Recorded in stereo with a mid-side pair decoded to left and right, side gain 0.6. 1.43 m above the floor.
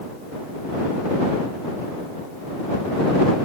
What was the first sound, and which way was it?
Only background noise.